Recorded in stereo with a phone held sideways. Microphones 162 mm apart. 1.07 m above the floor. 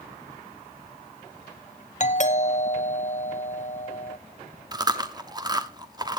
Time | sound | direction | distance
2.0 | a doorbell | 50° left (ahead or behind) | 0.8 m
4.7 | chewing | 25° right (ahead or behind) | 1.0 m